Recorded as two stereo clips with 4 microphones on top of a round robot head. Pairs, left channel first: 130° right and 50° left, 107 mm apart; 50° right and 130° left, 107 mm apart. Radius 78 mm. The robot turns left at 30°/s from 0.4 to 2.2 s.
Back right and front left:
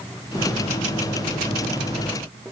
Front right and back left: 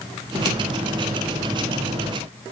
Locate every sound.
Only background noise.